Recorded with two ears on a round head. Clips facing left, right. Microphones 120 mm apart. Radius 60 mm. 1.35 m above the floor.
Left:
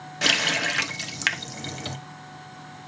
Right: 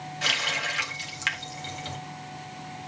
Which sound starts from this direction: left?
A running tap, at 0.2 s.